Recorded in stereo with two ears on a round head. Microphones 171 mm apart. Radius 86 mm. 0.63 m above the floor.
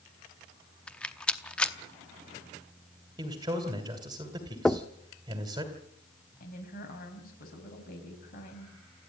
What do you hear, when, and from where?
0.9 s a rattle: 5° left (ahead or behind), 0.8 m
3.2 s a man speaking: 20° right (ahead or behind), 2 m
4.7 s knocking: 5° left (ahead or behind), 0.6 m
6.4 s a woman speaking: 50° left (ahead or behind), 5 m